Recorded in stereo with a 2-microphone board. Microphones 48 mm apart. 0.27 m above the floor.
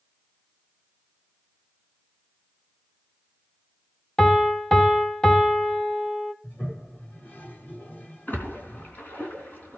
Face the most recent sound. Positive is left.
turn(degrees=40)  # may be behind; listen again after turning